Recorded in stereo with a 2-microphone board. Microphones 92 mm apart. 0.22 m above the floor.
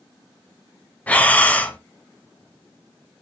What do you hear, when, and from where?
1.1 s breathing: 15° left (ahead or behind), 1.0 m